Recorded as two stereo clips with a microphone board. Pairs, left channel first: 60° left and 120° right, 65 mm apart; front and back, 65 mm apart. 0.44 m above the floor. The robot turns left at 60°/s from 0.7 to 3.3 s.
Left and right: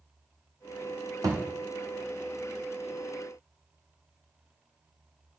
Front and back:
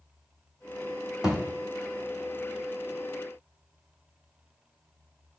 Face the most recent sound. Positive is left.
turn(degrees=135)